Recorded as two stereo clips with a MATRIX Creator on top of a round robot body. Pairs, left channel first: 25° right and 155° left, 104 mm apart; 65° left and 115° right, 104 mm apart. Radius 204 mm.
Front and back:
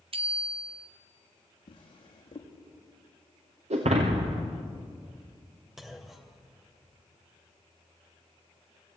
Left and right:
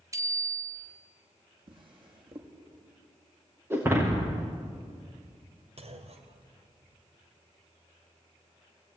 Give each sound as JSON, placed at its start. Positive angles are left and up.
{"t": 0.1, "sound": "a bicycle bell", "azimuth_deg": -175, "distance_m": 2.5}
{"t": 1.7, "sound": "a drawer", "azimuth_deg": -70, "distance_m": 6.0}
{"t": 3.7, "sound": "breaking glass", "azimuth_deg": 175, "distance_m": 5.0}
{"t": 5.8, "sound": "a clunk", "azimuth_deg": -115, "distance_m": 2.5}